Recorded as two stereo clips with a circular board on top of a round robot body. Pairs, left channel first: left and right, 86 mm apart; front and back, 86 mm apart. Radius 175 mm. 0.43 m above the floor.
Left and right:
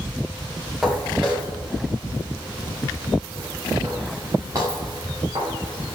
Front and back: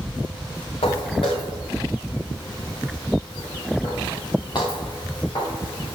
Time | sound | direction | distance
0.8 | footsteps | 5° right | 4 m